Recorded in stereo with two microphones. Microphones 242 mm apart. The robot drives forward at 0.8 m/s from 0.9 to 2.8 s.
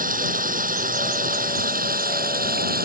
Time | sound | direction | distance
0.0 | running water | 35° right (ahead or behind) | ?